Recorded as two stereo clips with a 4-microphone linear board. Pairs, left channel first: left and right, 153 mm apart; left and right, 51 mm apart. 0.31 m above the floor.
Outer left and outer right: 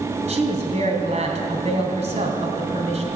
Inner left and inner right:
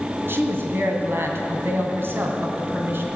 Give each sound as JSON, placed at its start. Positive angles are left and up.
{"t": 0.3, "sound": "a woman speaking", "side_deg": -50, "distance_m": 2.0}